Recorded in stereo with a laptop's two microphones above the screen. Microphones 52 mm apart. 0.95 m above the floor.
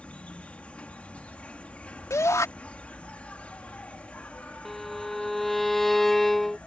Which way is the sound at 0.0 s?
25° left (ahead or behind).